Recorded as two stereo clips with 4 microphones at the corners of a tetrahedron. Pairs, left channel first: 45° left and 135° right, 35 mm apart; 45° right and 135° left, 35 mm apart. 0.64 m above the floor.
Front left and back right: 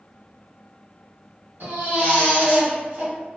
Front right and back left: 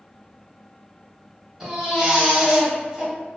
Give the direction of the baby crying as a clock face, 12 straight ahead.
5 o'clock.